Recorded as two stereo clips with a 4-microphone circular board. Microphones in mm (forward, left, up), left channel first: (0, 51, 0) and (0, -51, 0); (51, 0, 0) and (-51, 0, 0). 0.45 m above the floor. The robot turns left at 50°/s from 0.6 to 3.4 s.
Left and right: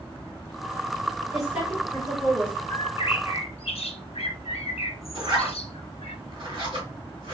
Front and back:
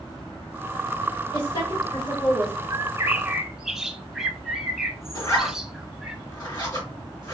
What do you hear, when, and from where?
1.3 s a woman speaking: 5° right, 2.0 m; by 2.6 s 65° right, 2.0 m
2.7 s a bird: 130° left, 0.6 m; by 6.2 s 95° left, 0.6 m
5.2 s a zipper: 60° right, 1.6 m